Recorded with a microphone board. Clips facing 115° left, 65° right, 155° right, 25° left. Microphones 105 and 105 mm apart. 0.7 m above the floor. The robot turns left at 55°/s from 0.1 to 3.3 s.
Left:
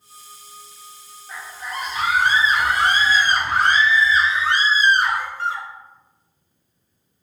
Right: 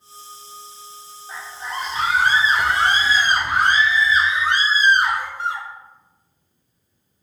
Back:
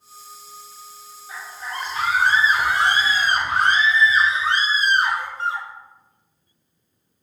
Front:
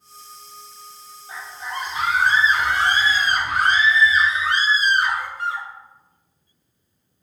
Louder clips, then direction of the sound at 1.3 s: Right 1 dB, front 1 dB; 15° right.